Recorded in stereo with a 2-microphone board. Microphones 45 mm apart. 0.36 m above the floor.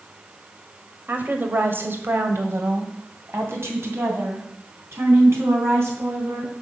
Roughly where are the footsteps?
No footsteps in this recording.